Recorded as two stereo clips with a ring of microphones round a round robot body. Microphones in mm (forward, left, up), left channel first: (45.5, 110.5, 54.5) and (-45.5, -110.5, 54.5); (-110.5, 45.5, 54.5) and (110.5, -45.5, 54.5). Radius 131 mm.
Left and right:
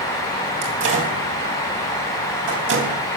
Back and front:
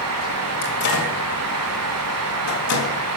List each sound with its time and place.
0.6 s a microwave: 155° right, 4 m